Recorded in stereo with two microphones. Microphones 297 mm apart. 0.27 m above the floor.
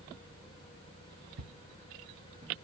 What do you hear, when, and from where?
1.4 s footsteps: 65° right (ahead or behind), 0.8 m; by 2.6 s 10° right (ahead or behind), 0.8 m